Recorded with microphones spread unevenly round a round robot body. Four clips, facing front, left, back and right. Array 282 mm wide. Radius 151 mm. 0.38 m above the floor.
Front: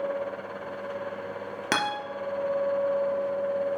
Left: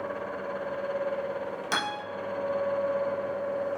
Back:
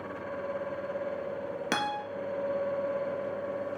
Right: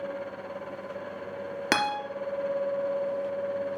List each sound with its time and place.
1.7 s a guitar: 50° right, 3.5 m